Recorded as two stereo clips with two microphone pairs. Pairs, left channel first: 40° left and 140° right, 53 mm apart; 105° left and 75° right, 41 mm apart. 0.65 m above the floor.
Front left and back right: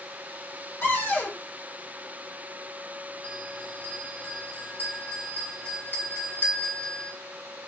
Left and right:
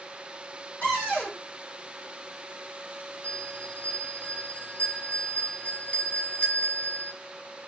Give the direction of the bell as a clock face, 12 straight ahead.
10 o'clock.